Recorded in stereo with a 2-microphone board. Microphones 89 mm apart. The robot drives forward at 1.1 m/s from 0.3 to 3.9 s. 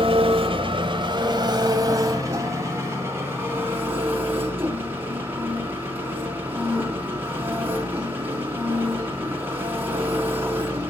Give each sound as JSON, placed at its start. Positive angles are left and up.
{"t": 0.0, "sound": "an engine running", "side_deg": -75, "distance_m": 2.0}